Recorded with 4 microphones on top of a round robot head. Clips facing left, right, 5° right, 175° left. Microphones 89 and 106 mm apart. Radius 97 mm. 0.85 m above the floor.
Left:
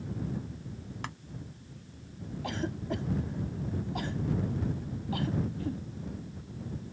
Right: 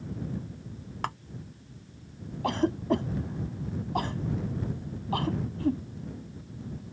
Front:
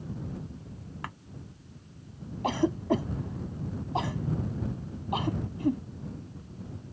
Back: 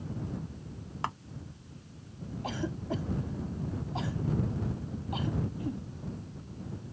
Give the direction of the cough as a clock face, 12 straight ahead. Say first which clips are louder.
Right 9 dB, front 9 dB; 1 o'clock.